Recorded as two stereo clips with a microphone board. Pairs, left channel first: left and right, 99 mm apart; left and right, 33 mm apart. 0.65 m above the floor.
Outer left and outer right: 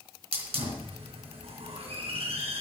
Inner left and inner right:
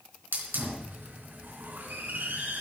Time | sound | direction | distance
0.3 | a hiss | 85° right | 3.5 m